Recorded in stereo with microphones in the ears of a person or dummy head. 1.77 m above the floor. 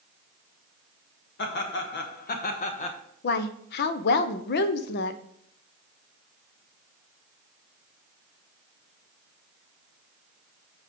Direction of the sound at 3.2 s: 60° left (ahead or behind).